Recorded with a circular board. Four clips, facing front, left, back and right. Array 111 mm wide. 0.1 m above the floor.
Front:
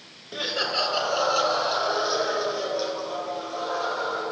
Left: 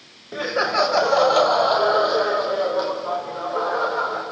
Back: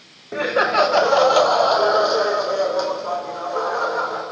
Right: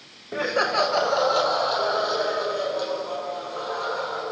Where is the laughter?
165° right, 1.2 m; by 4.2 s 140° left, 6.5 m.